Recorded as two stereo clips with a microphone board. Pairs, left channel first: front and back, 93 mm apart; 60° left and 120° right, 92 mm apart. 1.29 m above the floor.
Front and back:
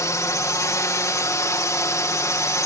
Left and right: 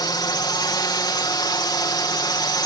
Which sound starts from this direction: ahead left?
A drone, at 0.0 s.